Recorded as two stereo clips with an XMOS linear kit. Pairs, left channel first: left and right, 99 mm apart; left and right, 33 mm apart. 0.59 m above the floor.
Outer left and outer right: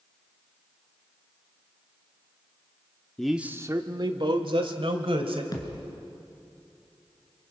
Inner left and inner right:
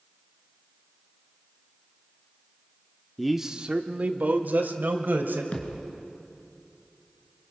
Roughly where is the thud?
Left.